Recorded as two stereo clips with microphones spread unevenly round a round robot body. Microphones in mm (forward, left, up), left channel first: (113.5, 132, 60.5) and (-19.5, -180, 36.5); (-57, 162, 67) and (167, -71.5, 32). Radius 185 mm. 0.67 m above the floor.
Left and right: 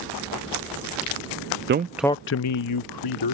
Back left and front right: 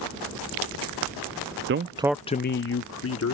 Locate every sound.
1.7 s a man speaking: 75° right; by 3.4 s 90° left